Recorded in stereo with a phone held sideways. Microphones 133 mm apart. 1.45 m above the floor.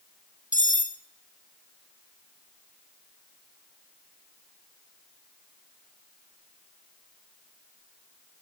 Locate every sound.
0.5 s cutlery clinking: 70° left (ahead or behind), 1.9 m